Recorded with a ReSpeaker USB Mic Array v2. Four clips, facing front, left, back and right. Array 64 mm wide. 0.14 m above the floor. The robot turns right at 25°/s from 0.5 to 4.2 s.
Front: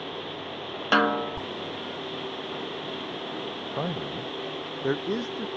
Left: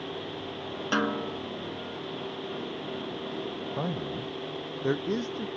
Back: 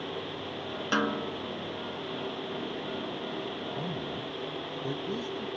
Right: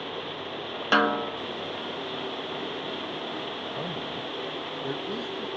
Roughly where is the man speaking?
Ahead.